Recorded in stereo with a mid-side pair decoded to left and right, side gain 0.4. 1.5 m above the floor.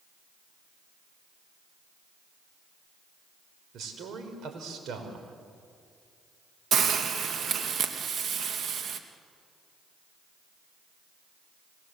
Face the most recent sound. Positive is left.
turn(degrees=-60)